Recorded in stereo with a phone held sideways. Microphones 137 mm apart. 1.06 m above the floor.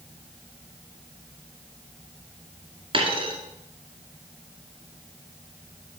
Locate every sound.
2.9 s a dropped coin: 40° right (ahead or behind), 2.5 m